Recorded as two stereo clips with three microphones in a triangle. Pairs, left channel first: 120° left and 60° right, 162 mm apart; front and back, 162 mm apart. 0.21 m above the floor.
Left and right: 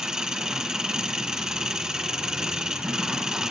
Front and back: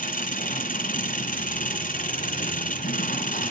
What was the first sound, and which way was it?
An engine running, 25° left.